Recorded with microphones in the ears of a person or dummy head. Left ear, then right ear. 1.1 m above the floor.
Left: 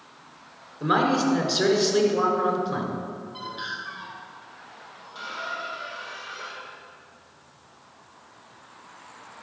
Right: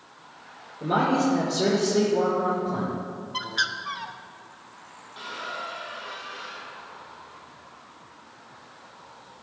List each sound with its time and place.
0.8 s a man speaking: 55° left (ahead or behind), 4 m
3.3 s a bird: 60° right (ahead or behind), 0.8 m
5.2 s a squeak: 70° left (ahead or behind), 2.5 m